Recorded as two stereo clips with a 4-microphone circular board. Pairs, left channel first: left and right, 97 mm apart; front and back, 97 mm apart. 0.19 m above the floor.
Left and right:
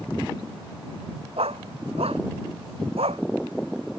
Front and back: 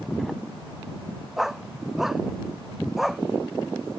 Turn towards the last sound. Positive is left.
turn(degrees=-95)